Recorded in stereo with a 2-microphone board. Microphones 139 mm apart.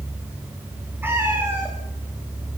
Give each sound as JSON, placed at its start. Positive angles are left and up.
{"t": 1.0, "sound": "a cat meowing", "side_deg": -15, "distance_m": 9.0}